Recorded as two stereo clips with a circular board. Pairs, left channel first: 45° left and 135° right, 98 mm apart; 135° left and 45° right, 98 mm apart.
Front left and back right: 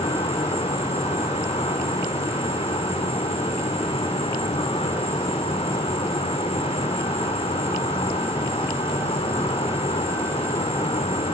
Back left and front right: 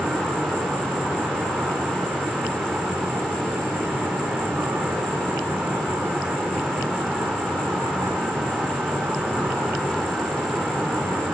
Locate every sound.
0.0 s an insect: 30° left, 5 m